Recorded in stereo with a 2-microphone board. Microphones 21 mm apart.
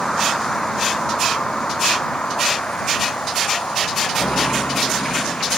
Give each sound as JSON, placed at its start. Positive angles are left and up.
{"t": 0.0, "sound": "a vehicle", "side_deg": 25}